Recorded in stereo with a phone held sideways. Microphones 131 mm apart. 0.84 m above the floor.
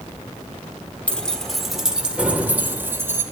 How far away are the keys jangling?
About 1.6 m.